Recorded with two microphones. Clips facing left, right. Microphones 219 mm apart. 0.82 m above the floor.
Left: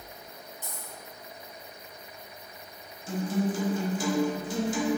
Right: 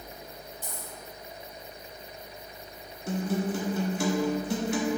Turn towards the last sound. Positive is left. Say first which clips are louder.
# even
turn(degrees=-65)  # may be behind; listen again after turning